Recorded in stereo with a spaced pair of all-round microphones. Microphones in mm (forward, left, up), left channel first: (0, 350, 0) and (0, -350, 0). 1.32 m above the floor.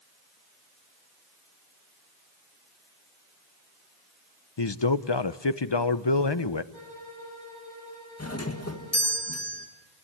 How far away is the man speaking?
About 0.8 m.